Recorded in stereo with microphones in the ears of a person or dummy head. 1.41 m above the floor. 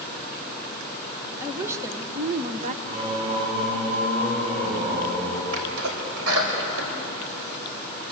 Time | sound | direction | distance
1.4 | a woman speaking | 15° right (ahead or behind) | 1.6 m
2.9 | singing | 35° right (ahead or behind) | 8 m
5.5 | a sneeze | 85° right | 5.5 m